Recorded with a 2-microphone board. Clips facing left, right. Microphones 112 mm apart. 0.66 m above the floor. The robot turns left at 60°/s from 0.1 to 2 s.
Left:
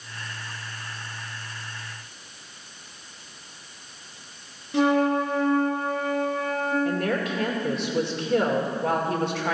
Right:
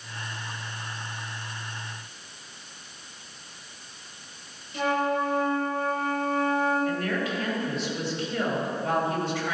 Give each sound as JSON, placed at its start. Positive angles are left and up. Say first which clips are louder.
{"t": 4.7, "sound": "a flute", "louder": "left 5 dB", "side_deg": 70, "distance_m": 1.7}
{"t": 6.8, "sound": "a woman speaking", "louder": "left 2 dB", "side_deg": 60, "distance_m": 2.0}